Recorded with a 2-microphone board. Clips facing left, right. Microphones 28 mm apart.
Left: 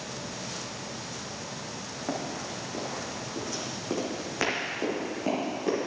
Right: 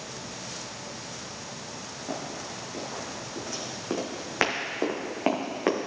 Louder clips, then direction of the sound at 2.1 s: Left 2 dB; 30° left (ahead or behind).